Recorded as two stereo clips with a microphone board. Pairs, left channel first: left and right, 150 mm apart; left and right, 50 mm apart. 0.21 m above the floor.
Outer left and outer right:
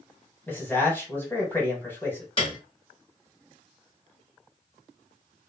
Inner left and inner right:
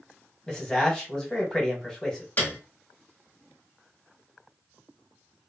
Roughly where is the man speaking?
Centre.